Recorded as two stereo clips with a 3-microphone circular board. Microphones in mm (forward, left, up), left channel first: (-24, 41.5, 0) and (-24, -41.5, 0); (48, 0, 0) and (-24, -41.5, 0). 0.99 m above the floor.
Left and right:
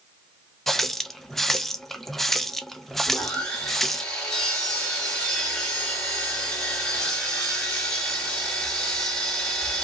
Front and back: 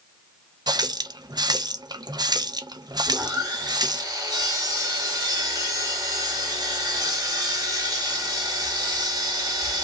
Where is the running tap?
Straight behind, 0.5 m.